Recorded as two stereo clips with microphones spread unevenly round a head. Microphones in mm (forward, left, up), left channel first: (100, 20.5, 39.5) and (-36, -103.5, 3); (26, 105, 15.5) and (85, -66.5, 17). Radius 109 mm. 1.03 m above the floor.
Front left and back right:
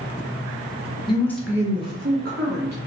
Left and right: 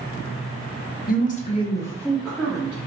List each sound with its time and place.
1.1 s a woman speaking: 110° left, 0.8 m; by 2.8 s 150° right, 1.5 m